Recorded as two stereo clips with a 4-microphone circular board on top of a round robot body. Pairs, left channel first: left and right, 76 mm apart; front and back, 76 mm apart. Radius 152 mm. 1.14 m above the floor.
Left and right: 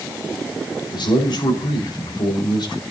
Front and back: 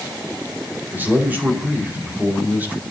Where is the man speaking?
110° left, 4.5 m.